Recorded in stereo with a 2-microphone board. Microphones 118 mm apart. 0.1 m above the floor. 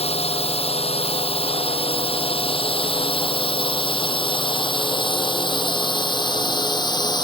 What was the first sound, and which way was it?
A drone, 60° left (ahead or behind).